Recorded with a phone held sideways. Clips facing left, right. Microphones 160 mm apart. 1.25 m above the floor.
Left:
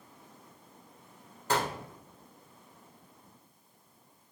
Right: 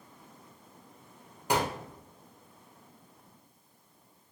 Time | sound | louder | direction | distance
1.5 | a gunshot | right 2 dB | 15° right (ahead or behind) | 1.0 m